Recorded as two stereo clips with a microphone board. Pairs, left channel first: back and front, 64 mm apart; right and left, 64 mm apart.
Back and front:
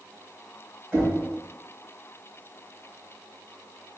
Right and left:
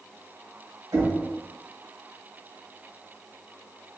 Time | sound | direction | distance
0.9 | knocking | 70° left | 1.4 m